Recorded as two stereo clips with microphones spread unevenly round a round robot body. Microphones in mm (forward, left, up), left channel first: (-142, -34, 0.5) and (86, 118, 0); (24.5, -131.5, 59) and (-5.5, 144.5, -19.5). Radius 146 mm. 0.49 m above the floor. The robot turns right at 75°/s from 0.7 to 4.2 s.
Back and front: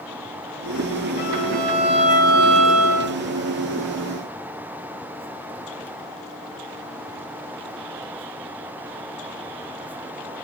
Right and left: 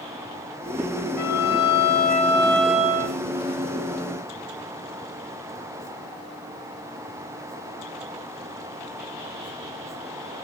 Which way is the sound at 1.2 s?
100° right.